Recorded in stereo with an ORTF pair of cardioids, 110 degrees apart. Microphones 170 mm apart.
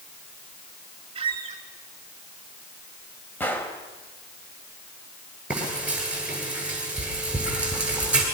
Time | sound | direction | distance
1.1 | a squeak | 30° right | 3.5 m
3.4 | a gunshot | 10° left | 3.5 m
5.5 | frying | 5° right | 10 m